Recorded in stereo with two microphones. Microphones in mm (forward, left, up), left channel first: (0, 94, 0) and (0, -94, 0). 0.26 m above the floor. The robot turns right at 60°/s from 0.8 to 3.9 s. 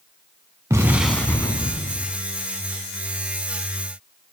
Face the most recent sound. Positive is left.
turn(degrees=170)